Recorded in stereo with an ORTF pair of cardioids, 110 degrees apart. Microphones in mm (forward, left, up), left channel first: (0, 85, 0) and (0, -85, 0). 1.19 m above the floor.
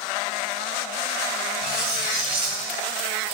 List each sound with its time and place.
1.6 s cutlery clinking: 70° right, 1.3 m